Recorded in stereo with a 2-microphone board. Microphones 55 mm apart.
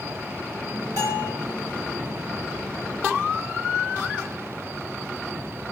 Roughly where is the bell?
Right.